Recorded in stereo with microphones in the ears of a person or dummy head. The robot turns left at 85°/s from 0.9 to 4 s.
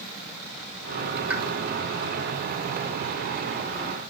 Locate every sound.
1.3 s a pop: 10° right (ahead or behind), 0.9 m; by 1.4 s 5° left (ahead or behind), 0.9 m